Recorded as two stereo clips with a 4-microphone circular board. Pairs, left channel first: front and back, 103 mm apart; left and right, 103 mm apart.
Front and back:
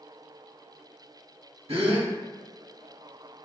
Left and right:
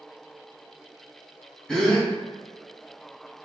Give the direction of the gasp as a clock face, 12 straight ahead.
6 o'clock.